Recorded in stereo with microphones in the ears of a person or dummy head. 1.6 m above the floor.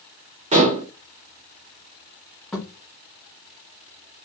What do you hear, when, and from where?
0.5 s dishes clattering: 25° right (ahead or behind), 0.8 m
2.5 s a thud: 5° left (ahead or behind), 1.2 m